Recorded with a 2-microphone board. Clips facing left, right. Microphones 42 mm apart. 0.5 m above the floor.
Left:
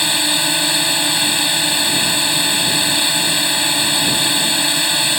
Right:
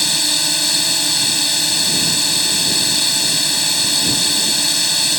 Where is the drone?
25° left (ahead or behind).